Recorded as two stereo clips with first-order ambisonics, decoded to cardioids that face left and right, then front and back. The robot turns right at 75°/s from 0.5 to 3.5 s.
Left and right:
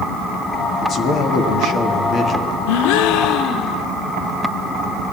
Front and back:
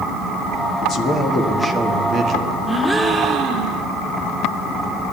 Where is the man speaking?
40° left, 1.3 m; by 2.6 s 170° left, 1.3 m.